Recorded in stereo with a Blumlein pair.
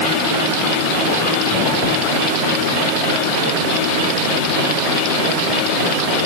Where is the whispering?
I don't hear whispering.